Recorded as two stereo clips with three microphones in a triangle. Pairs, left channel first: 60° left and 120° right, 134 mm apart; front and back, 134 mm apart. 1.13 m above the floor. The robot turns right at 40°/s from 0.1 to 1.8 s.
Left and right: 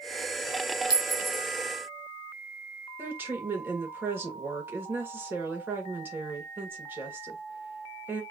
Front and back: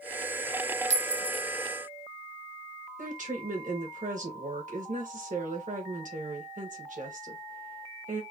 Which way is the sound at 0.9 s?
170° right.